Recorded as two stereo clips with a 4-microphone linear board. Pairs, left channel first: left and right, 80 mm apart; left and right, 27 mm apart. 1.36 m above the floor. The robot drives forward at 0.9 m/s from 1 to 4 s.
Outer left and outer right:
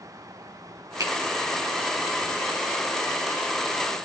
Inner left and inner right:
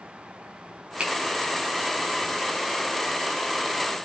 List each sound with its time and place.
1.0 s a finger snap: 45° right (ahead or behind), 8 m